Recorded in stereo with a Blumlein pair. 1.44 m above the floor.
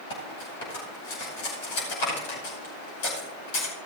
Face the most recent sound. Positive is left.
turn(degrees=50)